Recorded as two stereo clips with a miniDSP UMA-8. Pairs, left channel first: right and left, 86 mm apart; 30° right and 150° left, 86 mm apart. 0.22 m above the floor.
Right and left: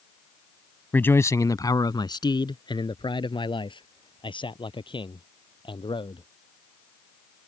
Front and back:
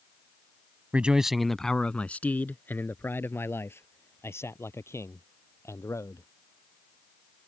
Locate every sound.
0.9 s a man speaking: 145° right; by 6.3 s 85° right